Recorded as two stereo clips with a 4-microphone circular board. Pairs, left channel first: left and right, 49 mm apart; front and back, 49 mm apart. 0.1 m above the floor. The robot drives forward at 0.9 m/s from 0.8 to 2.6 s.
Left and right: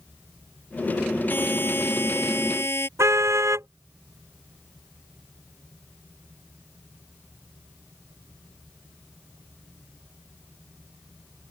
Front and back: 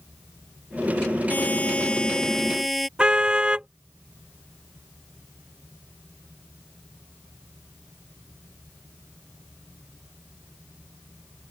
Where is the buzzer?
50° left; by 2.9 s 90° left.